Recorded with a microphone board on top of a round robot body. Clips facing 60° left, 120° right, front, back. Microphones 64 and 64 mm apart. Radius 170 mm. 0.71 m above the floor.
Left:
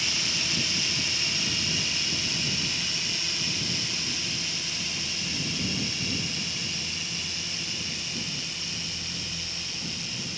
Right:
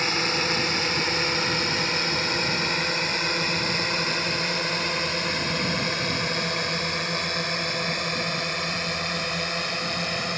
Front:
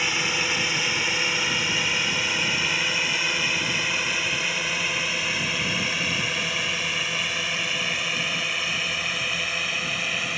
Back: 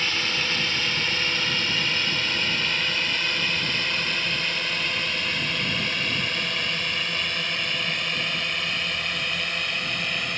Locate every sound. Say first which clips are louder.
0.0 s a drone: right 8 dB, front 1 dB; 80° right; by 10.4 s 85° right